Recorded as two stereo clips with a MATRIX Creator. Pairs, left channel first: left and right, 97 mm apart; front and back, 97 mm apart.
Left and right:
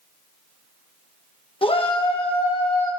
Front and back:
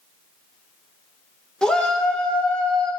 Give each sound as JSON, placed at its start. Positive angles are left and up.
{"t": 1.6, "sound": "a shout", "azimuth_deg": 80, "distance_m": 1.2}